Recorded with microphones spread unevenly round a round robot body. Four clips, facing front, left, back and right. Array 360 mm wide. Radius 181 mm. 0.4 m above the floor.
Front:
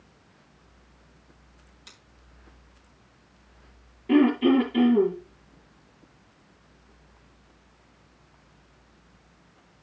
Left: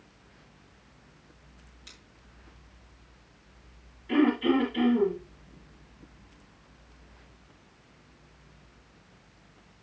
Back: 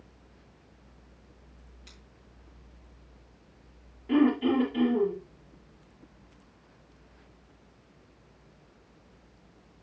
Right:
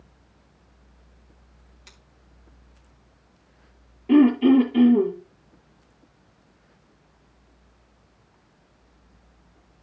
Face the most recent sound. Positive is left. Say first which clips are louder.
# right 8 dB, front 4 dB
turn(degrees=-55)